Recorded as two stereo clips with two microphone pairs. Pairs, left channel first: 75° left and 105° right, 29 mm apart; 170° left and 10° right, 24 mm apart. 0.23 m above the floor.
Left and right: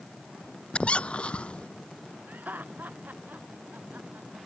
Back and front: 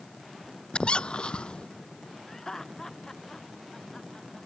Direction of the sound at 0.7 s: 125° left.